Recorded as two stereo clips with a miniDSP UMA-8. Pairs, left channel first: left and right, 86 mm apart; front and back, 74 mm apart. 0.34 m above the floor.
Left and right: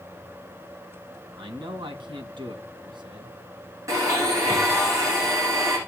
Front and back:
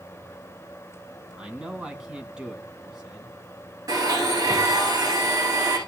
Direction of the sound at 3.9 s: 140° right.